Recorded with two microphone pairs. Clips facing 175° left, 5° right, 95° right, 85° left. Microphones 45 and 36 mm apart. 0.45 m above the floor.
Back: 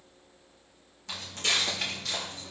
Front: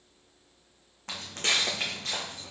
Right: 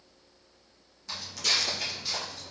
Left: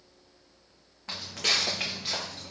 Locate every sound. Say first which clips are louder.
1.1 s footsteps: front 1 dB, left 1 dB; 30° left, 1.4 m